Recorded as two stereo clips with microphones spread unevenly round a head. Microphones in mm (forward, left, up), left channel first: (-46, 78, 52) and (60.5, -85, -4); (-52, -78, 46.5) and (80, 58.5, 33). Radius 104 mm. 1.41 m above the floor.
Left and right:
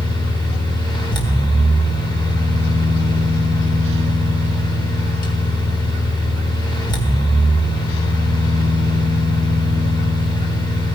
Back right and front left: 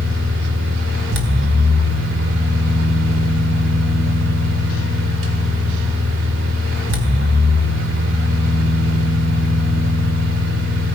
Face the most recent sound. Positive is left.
turn(degrees=70)